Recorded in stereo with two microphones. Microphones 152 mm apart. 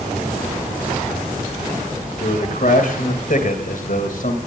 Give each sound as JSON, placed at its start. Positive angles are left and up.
{"t": 2.2, "sound": "a man speaking", "side_deg": 65, "distance_m": 3.5}